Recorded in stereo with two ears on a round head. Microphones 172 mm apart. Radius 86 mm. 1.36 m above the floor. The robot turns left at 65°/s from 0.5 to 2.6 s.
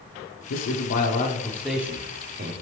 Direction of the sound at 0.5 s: 80° left.